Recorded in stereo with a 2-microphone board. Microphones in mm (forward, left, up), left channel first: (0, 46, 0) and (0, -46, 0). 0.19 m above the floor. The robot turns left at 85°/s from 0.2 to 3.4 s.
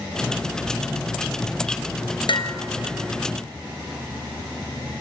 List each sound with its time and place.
2.3 s dishes clattering: 70° left (ahead or behind), 1.8 m; by 2.5 s 55° left (ahead or behind), 1.8 m